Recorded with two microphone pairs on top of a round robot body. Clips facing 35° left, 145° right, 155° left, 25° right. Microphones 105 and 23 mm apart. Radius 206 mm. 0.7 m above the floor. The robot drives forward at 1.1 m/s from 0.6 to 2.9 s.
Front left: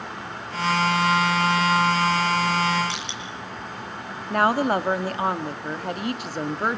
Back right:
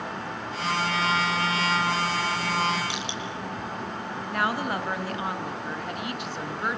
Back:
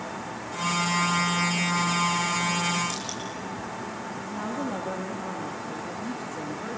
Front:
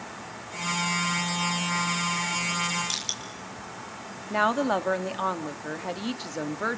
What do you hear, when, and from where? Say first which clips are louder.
2.9 s crushing: even, front 2 dB; 65° right, 5.5 m
4.3 s a woman speaking: front left 7 dB, front 9 dB; 5° right, 2 m